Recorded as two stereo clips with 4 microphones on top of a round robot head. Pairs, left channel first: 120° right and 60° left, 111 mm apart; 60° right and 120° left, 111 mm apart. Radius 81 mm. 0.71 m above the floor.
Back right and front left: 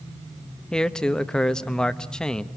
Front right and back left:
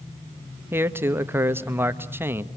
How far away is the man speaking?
About 1.0 m.